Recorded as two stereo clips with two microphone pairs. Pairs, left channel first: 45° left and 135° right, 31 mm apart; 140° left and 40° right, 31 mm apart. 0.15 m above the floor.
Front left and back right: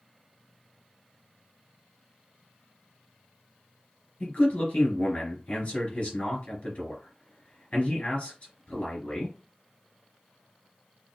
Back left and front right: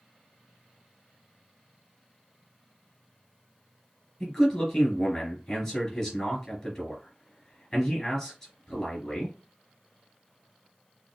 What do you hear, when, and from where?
4.2 s a man speaking: 85° left, 2.5 m